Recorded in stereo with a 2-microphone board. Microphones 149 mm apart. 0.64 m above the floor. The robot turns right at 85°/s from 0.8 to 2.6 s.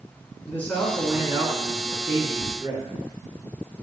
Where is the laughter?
25° left (ahead or behind), 1.1 m; by 2.5 s 20° left (ahead or behind), 1.1 m.